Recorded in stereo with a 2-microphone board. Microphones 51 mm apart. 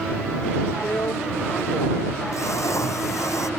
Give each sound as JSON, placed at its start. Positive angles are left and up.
{"t": 0.8, "sound": "a drill", "side_deg": 70}